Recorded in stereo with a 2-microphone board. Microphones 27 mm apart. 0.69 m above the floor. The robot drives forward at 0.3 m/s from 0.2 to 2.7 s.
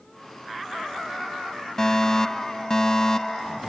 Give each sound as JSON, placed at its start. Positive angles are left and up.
{"t": 1.8, "sound": "a fire alarm", "side_deg": 20}